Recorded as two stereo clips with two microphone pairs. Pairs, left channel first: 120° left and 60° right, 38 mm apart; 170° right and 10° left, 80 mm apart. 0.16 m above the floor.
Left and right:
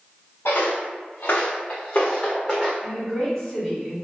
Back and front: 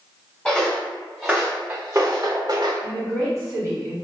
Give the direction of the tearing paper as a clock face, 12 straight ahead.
No tearing paper in this recording.